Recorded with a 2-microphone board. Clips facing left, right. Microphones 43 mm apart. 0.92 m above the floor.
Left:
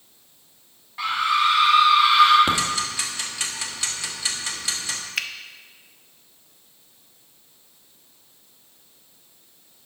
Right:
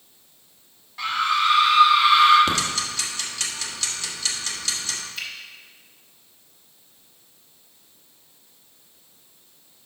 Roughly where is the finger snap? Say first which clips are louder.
Left 7 dB; left.